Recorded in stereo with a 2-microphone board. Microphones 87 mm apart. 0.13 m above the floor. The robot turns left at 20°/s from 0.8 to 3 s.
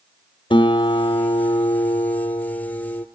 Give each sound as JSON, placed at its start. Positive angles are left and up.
{"t": 0.5, "sound": "a guitar", "azimuth_deg": 90, "distance_m": 0.6}